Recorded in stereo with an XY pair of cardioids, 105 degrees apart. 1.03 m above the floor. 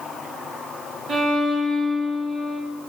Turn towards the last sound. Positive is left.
turn(degrees=-60)